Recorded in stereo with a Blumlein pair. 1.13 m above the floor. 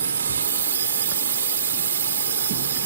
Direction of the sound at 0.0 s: 70° right.